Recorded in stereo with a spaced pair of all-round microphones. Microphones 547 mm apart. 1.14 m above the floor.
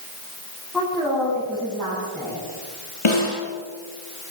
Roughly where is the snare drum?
Left.